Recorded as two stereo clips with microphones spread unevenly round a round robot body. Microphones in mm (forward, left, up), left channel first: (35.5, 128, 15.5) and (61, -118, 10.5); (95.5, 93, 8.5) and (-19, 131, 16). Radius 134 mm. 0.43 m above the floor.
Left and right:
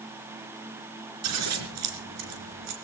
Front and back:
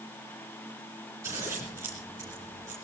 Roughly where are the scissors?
Behind right.